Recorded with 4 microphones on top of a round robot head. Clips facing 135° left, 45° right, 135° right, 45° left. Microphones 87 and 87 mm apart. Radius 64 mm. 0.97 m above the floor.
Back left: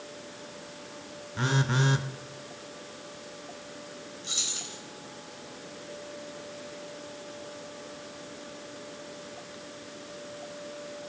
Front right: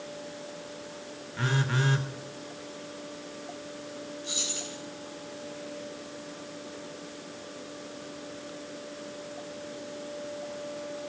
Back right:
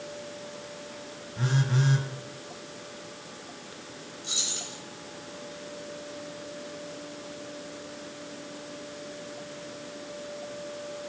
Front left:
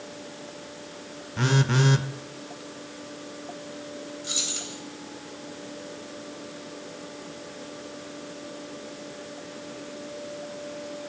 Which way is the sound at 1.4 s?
65° left.